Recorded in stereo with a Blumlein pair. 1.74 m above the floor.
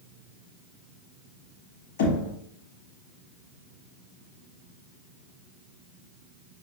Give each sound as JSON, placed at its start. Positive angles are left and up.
{"t": 2.0, "sound": "knocking", "azimuth_deg": 55, "distance_m": 1.2}